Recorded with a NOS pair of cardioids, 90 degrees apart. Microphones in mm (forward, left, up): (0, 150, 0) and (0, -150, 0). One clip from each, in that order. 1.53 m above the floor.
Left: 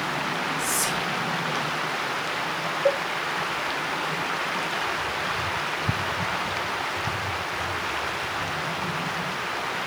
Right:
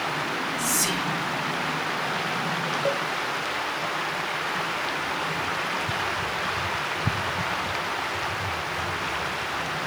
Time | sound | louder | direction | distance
0.6 | whispering | even | 50° right | 5 m
2.9 | a cowbell | left 5 dB | 35° right | 1.7 m